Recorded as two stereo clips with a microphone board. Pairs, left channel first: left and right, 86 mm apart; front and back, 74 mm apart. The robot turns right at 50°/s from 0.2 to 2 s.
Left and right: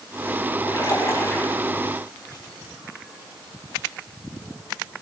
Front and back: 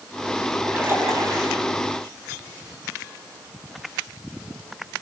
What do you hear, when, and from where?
0.7 s a splash: 115° left, 5 m; by 1.6 s 165° left, 5 m